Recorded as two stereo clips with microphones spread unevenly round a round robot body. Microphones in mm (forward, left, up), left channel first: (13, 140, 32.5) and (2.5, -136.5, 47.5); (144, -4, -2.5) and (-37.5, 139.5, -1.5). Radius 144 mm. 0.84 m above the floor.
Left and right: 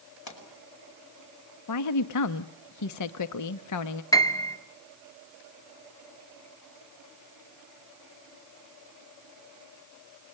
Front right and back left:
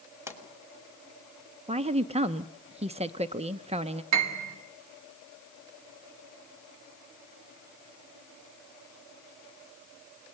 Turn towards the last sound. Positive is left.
turn(degrees=165)